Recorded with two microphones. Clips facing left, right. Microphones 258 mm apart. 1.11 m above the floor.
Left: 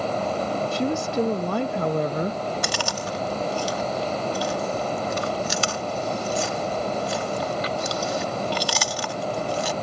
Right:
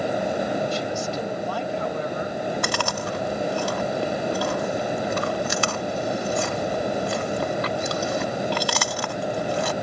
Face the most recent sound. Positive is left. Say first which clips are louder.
# right 2 dB
turn(degrees=-60)  # may be behind; listen again after turning